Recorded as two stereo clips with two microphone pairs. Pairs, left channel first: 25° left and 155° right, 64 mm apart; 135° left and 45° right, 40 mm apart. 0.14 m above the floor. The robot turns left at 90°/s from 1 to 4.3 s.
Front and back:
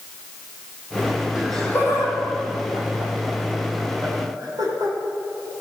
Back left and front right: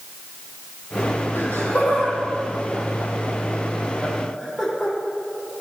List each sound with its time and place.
1.4 s laughter: 120° left, 5.5 m; by 5.0 s 145° right, 5.5 m